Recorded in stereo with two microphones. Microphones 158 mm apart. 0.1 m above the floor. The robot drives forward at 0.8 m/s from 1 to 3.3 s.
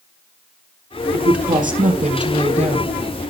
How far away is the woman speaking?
About 2.5 m.